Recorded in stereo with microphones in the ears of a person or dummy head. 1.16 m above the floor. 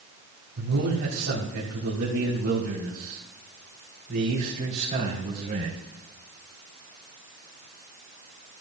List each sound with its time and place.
0.6 s a man speaking: 75° right (ahead or behind), 3.5 m; by 5.8 s 30° right (ahead or behind), 3.5 m